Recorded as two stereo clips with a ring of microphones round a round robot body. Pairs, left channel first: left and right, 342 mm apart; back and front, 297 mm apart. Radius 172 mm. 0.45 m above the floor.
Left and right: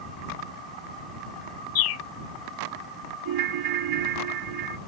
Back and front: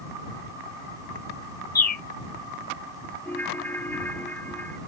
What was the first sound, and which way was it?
A bird, 130° left.